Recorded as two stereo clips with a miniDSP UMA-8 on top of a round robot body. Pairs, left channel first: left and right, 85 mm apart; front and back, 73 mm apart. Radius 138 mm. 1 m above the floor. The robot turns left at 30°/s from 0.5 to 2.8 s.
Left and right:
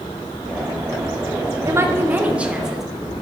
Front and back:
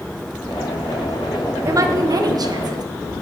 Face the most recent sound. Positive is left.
turn(degrees=-175)